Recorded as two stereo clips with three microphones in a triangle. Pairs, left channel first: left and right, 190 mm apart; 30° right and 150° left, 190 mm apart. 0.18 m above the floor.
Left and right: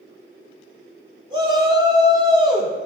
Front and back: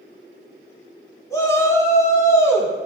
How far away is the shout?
About 1.0 m.